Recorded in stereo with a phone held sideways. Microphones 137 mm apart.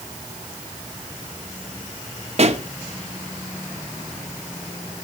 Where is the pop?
50° right (ahead or behind), 1.0 m.